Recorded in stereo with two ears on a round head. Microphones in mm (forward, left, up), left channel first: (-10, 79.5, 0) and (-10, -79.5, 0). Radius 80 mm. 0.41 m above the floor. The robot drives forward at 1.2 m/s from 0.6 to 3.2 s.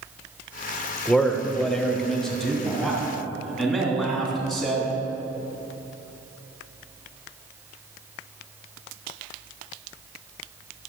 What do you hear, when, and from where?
1.1 s a man speaking: 5° left (ahead or behind), 0.8 m; by 4.9 s centre (ahead or behind), 3 m